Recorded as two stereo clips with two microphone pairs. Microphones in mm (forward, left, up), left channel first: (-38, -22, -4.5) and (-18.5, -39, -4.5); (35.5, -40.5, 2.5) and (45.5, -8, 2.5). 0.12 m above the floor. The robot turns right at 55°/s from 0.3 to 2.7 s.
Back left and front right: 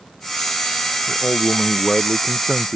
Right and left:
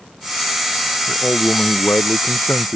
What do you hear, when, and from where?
1.1 s a man speaking: straight behind; by 2.8 s 90° right